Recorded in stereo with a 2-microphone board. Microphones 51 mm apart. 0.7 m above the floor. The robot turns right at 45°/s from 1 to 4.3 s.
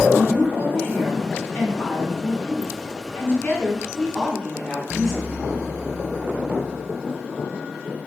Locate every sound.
0.2 s a woman speaking: 30° left, 1.9 m; by 5.5 s straight behind, 1.9 m